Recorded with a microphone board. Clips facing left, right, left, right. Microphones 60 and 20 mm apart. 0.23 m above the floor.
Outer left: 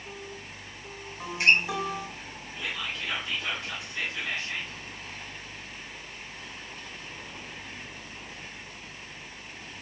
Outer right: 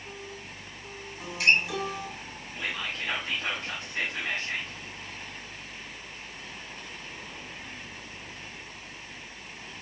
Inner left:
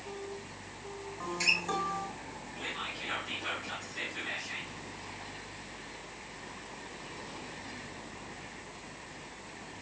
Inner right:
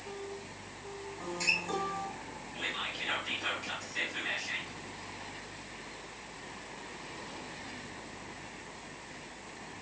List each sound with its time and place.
1.2 s a guitar: 25° left (ahead or behind), 1.5 m
2.5 s whispering: 45° right (ahead or behind), 1.3 m